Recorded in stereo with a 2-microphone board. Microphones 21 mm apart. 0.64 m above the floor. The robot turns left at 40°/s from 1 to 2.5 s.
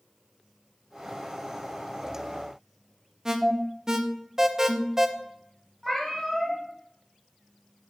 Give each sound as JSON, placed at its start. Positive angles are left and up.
{"t": 3.2, "sound": "an alarm", "side_deg": -30, "distance_m": 0.6}
{"t": 5.8, "sound": "a cat meowing", "side_deg": 10, "distance_m": 2.5}